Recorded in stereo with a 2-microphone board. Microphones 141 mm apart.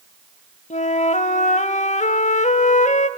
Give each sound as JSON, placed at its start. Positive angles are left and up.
{"t": 0.7, "sound": "a flute", "side_deg": 55, "distance_m": 0.6}